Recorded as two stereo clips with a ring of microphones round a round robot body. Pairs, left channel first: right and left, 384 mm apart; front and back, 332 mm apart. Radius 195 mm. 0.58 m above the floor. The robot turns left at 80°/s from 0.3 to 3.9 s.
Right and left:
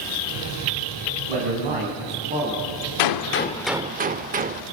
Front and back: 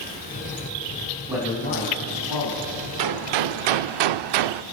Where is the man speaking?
100° left, 4.5 m; by 2.7 s 15° right, 4.5 m.